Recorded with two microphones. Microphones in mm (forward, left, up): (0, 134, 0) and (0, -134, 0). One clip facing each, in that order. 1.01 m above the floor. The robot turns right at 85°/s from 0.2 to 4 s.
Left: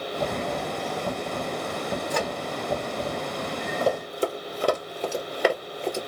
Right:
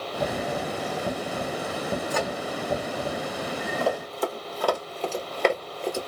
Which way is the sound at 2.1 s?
Centre (ahead or behind).